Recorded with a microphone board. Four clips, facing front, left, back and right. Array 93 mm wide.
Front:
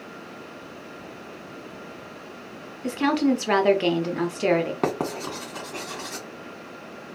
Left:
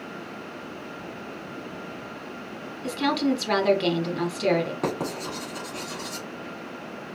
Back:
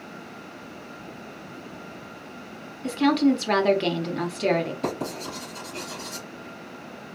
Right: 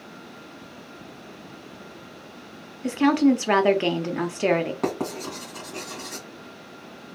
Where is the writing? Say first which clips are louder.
Right 1 dB, front 3 dB; 10° right, 1.8 m.